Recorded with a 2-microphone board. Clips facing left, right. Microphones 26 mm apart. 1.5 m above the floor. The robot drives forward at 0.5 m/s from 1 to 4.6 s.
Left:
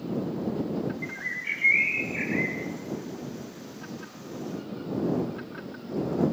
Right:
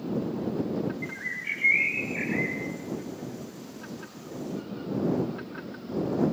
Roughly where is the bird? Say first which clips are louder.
Left 1 dB; centre.